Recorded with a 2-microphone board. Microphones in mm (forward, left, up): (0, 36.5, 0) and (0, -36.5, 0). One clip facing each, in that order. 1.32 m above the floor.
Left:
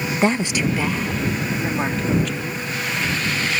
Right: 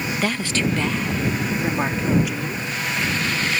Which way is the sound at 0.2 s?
25° left (ahead or behind).